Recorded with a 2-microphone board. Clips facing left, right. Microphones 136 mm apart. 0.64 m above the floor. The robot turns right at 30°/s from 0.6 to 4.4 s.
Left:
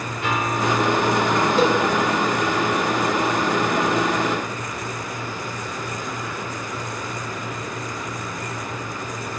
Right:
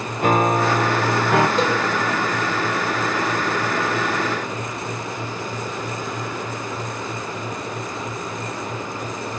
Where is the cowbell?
Centre (ahead or behind), 1.5 m; by 1.8 s 5° left (ahead or behind), 1.5 m.